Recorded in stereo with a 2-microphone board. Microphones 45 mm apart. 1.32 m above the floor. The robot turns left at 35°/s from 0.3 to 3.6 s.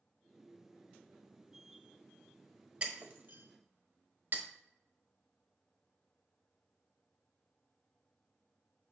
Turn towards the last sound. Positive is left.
turn(degrees=-50)  # may be behind; listen again after turning